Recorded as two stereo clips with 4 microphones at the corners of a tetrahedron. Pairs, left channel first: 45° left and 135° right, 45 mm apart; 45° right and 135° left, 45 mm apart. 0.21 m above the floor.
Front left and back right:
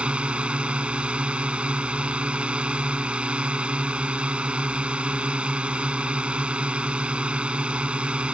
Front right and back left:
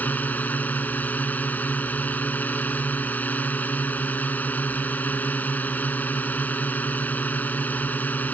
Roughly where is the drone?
Right.